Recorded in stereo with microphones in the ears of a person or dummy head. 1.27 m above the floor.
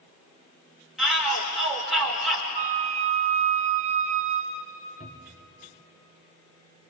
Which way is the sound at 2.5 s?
45° right (ahead or behind).